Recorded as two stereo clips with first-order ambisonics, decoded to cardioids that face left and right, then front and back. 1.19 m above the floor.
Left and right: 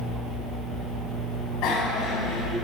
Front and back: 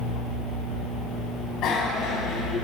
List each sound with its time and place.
1.6 s a bicycle bell: 50° left, 6 m